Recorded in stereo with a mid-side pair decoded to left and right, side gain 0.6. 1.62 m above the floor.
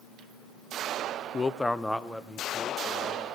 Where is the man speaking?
30° left, 0.7 m; by 3.3 s 10° right, 3 m.